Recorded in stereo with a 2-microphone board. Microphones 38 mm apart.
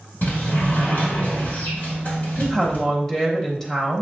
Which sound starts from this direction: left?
A sliding door, at 0.2 s.